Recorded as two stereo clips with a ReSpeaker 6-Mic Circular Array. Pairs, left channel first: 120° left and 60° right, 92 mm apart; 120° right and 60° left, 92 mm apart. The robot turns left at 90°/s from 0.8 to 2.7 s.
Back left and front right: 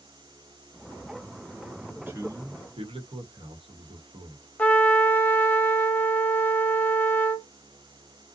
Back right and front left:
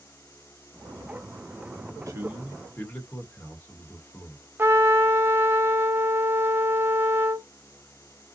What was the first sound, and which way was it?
A man speaking, 15° left.